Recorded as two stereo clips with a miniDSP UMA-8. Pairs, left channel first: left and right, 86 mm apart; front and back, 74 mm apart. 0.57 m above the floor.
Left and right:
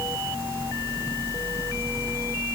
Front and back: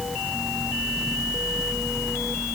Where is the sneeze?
I don't hear a sneeze.